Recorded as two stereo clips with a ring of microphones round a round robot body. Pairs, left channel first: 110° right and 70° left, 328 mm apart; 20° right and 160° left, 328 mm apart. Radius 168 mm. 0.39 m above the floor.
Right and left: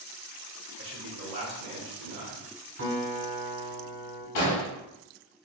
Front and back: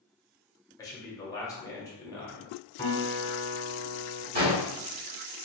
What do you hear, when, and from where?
0.8 s a man speaking: 50° left, 0.9 m
2.8 s a guitar: 50° left, 1.8 m
4.3 s an explosion: 140° right, 1.0 m